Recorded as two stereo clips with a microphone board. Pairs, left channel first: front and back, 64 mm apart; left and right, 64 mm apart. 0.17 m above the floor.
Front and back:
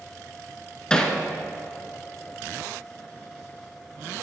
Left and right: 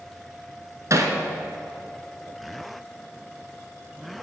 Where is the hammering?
75° right, 1.1 m.